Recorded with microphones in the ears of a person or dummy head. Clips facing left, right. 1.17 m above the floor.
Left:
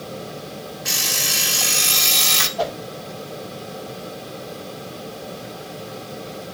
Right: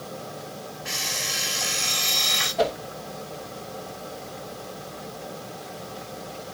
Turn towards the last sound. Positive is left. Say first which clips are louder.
# right 1 dB
turn(degrees=-30)  # may be behind; listen again after turning